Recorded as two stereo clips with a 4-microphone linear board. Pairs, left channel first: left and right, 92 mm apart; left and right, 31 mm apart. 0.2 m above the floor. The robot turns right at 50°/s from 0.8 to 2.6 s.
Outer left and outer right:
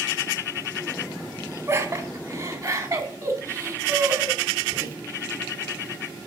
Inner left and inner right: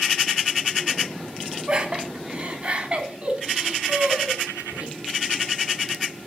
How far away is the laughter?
About 1.7 m.